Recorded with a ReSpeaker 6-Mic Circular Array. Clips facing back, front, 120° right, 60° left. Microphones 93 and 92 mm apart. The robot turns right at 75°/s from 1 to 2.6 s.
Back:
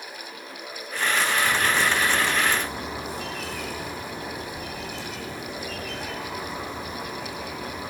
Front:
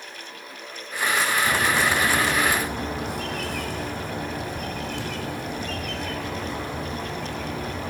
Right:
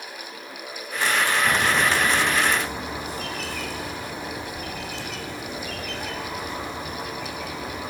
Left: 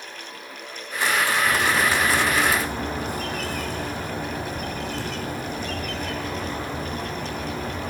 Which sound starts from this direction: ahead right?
A bird, at 1.4 s.